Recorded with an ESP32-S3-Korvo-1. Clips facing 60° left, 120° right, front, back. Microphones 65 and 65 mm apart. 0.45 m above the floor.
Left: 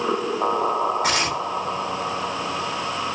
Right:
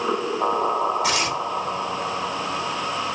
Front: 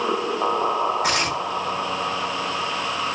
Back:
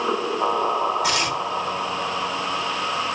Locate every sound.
1.0 s tearing paper: 30° left, 0.9 m